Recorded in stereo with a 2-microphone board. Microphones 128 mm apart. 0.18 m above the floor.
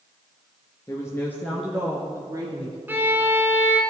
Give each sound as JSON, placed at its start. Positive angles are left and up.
{"t": 0.9, "sound": "a woman speaking", "side_deg": 25, "distance_m": 2.0}
{"t": 2.9, "sound": "a violin", "side_deg": -15, "distance_m": 1.6}